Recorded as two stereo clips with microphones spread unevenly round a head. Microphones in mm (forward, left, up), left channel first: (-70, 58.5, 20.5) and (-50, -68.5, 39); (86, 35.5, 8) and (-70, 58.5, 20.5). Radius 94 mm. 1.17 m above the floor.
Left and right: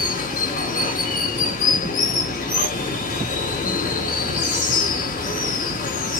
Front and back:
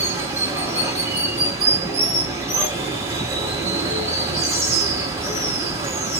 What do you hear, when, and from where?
0.0 s running water: 100° left, 3 m